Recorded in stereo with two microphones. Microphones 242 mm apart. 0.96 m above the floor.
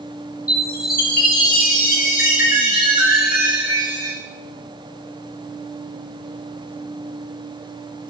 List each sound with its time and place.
0.5 s a chime: 35° left (ahead or behind), 1.5 m